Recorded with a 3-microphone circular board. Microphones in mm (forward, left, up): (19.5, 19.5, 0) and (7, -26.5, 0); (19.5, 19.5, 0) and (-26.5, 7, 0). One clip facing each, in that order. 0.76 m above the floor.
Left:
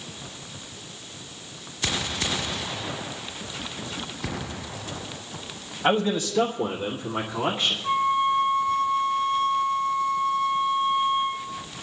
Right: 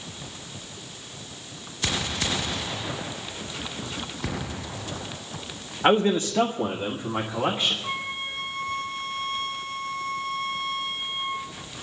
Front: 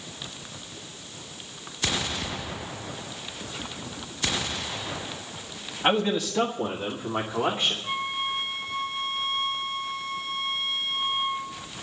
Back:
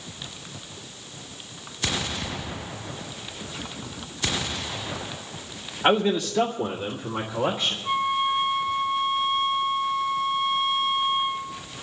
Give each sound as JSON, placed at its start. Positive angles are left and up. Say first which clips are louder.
{"t": 5.8, "sound": "a man speaking", "louder": "right 3 dB, back 3 dB", "azimuth_deg": -95, "distance_m": 1.2}
{"t": 7.8, "sound": "a flute", "louder": "left 10 dB, back 6 dB", "azimuth_deg": -75, "distance_m": 0.8}